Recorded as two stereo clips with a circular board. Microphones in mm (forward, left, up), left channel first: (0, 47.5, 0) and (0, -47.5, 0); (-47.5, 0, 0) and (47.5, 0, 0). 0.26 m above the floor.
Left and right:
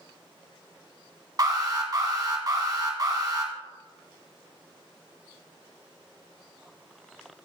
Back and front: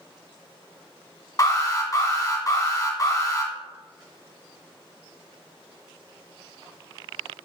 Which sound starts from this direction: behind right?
An alarm, at 1.4 s.